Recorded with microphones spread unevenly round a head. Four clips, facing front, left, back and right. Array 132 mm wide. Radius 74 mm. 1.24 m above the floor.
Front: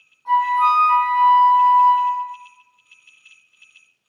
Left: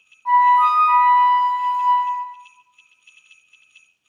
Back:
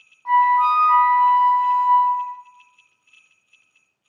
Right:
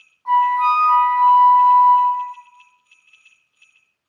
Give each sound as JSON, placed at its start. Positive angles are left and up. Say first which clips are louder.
{"t": 0.2, "sound": "a flute", "louder": "left 2 dB, back 1 dB", "azimuth_deg": 170, "distance_m": 1.5}